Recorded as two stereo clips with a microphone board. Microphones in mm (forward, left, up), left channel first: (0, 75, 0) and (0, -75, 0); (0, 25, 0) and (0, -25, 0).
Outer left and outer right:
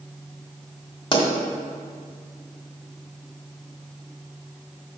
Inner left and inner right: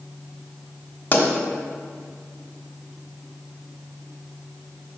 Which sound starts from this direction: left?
A pop, at 1.1 s.